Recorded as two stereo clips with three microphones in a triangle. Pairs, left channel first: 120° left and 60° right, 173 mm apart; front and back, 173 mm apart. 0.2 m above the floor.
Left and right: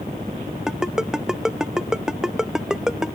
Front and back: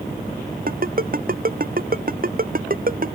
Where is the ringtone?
145° right.